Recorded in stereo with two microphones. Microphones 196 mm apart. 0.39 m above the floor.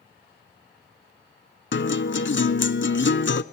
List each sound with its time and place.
1.7 s a guitar: 75° left (ahead or behind), 0.7 m